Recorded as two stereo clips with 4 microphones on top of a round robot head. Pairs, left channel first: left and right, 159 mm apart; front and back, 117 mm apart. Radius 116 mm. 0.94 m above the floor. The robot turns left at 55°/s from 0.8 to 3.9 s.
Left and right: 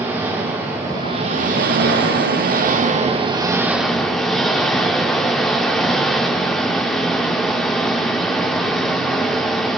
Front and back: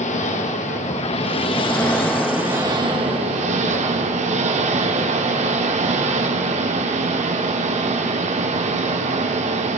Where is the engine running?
10° right, 2.5 m; by 9.8 s straight behind, 2.5 m.